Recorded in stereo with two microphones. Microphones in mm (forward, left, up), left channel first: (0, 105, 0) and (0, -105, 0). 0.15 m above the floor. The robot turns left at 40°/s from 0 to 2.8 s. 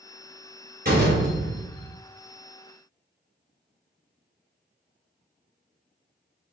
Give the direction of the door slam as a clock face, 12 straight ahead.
2 o'clock.